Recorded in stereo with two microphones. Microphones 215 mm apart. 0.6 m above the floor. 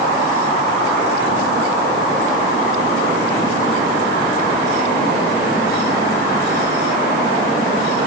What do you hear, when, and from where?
Only background noise.